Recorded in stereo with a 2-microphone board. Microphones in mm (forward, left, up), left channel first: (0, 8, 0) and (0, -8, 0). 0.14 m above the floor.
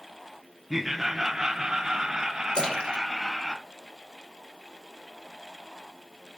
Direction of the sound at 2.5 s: 70° left (ahead or behind).